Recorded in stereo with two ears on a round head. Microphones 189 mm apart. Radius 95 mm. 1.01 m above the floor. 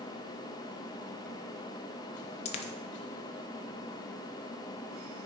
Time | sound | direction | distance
2.5 | a dropped coin | 30° left (ahead or behind) | 0.9 m